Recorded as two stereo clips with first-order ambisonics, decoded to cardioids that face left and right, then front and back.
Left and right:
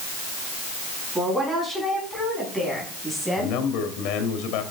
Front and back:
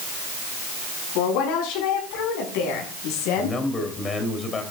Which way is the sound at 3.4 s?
70° left.